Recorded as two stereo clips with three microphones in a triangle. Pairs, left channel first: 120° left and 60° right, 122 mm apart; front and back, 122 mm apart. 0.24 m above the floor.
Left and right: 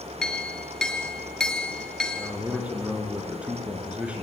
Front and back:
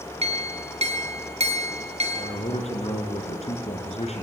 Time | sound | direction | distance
0.2 | a clink | 155° right | 2 m
2.1 | a man speaking | 20° left | 4 m